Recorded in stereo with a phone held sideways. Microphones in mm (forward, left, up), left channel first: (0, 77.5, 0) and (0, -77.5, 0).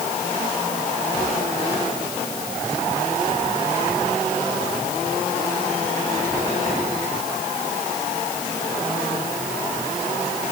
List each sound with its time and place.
Only background noise.